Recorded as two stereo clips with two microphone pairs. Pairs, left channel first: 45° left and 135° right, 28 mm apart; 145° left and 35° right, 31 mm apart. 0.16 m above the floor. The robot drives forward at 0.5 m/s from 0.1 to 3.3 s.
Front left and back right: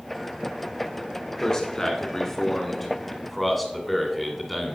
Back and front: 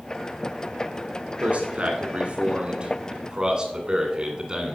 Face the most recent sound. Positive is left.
turn(degrees=-35)